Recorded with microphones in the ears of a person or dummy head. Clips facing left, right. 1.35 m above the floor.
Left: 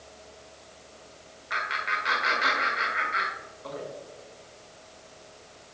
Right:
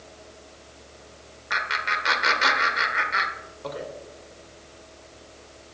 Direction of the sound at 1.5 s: 65° right (ahead or behind).